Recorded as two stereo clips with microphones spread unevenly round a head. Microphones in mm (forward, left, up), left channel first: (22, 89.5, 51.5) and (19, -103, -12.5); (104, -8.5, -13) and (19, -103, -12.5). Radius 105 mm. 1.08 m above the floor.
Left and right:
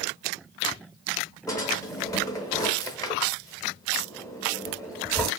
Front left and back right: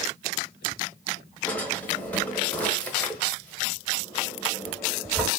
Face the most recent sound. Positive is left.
turn(degrees=120)